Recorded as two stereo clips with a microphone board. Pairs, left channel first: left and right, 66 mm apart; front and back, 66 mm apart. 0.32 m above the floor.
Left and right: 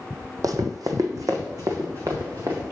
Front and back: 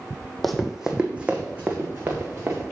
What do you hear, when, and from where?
0.4 s running footsteps: 85° right, 0.7 m; by 2.6 s 120° right, 1.9 m